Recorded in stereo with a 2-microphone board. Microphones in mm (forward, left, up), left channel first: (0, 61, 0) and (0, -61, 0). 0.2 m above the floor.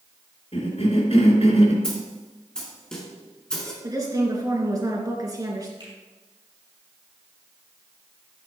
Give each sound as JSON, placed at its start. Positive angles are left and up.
{"t": 0.5, "sound": "a cough", "side_deg": 60, "distance_m": 3.0}
{"t": 1.8, "sound": "a snare drum", "side_deg": 5, "distance_m": 3.0}
{"t": 3.8, "sound": "a woman speaking", "side_deg": -30, "distance_m": 2.5}
{"t": 5.8, "sound": "a finger snap", "side_deg": -40, "distance_m": 5.0}